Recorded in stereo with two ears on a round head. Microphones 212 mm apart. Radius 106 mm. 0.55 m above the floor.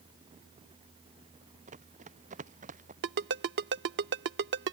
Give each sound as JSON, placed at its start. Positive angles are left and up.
{"t": 1.7, "sound": "running footsteps", "side_deg": -30}
{"t": 3.0, "sound": "a ringtone", "side_deg": -50}